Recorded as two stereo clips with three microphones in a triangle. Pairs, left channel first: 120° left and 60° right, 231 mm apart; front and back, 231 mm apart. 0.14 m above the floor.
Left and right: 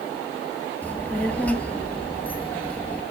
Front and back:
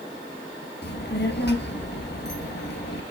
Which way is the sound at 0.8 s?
35° left.